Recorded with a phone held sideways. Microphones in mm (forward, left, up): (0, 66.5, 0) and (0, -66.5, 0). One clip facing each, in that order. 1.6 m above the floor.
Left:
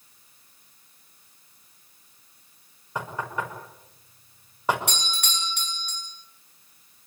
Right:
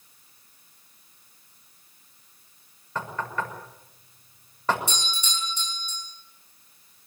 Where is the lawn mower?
No lawn mower in this recording.